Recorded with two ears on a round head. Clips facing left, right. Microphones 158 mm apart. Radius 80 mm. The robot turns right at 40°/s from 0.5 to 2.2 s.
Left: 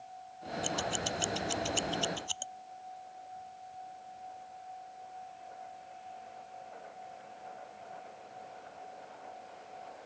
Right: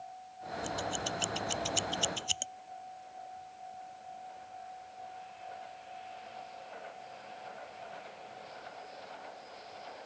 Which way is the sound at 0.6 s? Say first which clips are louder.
Left 1 dB; 35° left (ahead or behind).